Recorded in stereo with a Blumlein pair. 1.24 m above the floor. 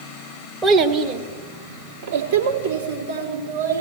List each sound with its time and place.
0.6 s a child speaking: 15° right, 1.0 m; by 3.8 s 75° right, 3.5 m